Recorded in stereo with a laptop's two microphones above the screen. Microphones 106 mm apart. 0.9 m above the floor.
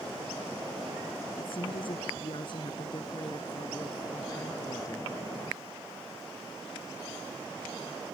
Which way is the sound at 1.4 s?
60° left (ahead or behind).